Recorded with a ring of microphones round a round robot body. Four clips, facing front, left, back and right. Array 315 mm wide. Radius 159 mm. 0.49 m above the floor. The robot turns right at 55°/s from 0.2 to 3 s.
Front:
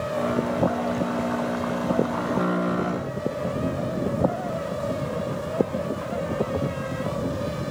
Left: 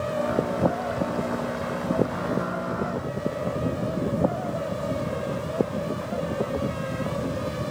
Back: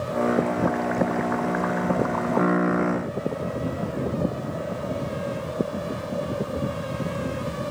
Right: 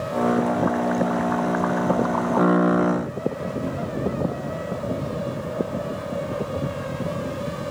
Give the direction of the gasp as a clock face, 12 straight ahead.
No gasp in this recording.